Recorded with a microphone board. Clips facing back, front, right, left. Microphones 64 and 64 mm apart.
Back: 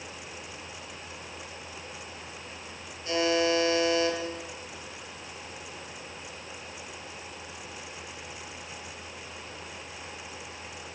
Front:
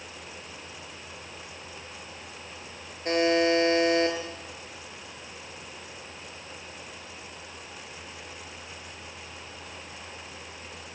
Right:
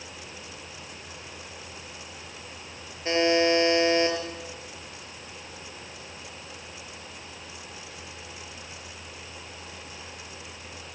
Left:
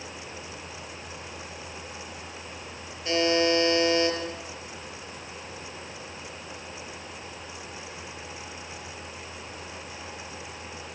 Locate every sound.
3.0 s a buzzer: 30° right, 6 m